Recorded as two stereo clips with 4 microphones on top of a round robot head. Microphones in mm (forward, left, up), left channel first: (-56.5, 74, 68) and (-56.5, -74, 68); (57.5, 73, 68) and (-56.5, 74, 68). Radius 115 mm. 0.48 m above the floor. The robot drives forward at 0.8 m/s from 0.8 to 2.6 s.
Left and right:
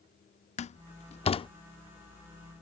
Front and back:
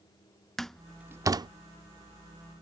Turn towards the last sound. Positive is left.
turn(degrees=160)